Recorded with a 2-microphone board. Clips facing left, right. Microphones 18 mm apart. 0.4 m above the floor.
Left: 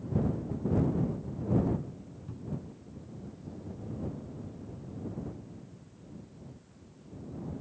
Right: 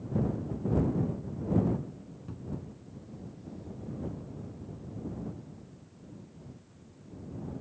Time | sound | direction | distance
2.3 | a cupboard door | 20° right (ahead or behind) | ?